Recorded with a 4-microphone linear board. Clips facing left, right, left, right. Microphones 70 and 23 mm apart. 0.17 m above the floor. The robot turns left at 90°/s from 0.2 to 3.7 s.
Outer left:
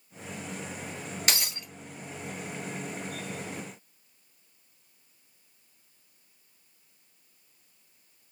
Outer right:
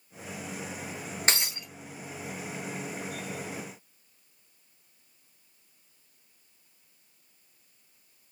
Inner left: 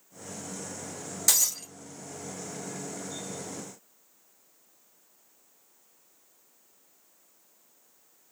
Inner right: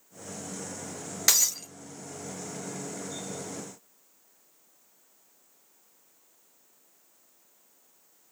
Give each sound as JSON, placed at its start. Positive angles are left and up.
{"t": 1.3, "sound": "breaking glass", "azimuth_deg": -145, "distance_m": 1.3}